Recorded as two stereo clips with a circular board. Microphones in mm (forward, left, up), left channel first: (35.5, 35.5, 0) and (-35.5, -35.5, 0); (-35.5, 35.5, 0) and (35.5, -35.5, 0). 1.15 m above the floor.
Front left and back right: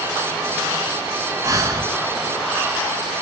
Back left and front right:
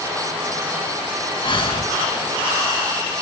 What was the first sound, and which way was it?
Breathing, 170° left.